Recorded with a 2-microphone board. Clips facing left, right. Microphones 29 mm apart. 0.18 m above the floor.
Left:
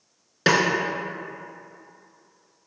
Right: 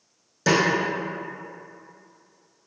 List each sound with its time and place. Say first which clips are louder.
0.5 s a snare drum: left 1 dB; 55° left (ahead or behind), 0.6 m